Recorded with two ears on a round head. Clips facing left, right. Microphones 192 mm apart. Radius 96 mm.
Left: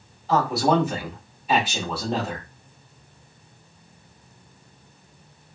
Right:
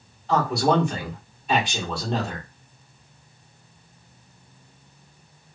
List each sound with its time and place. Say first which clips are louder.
0.3 s a man speaking: even; 5° left (ahead or behind), 1.4 m